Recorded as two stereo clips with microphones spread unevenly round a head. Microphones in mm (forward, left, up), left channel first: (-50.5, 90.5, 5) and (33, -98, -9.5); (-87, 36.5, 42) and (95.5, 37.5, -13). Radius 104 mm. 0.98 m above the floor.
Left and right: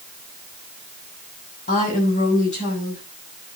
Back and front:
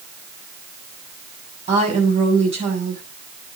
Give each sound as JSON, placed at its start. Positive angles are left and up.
{"t": 1.7, "sound": "a woman speaking", "azimuth_deg": 55, "distance_m": 7.0}